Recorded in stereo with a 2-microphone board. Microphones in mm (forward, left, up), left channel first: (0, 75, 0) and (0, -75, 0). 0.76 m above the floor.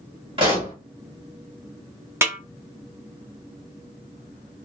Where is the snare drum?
15° right (ahead or behind), 0.5 m.